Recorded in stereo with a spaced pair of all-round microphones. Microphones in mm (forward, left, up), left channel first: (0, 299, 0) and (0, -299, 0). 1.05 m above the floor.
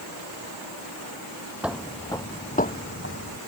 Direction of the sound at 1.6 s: Centre (ahead or behind).